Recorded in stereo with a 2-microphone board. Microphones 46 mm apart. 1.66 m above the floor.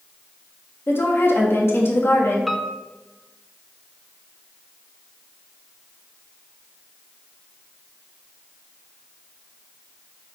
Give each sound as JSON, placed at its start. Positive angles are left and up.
{"t": 0.9, "sound": "a woman speaking", "side_deg": 55, "distance_m": 2.5}
{"t": 2.5, "sound": "a piano", "side_deg": 0, "distance_m": 0.8}